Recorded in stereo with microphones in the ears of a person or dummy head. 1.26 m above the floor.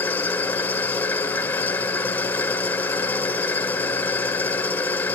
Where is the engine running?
10° left (ahead or behind), 1.6 m.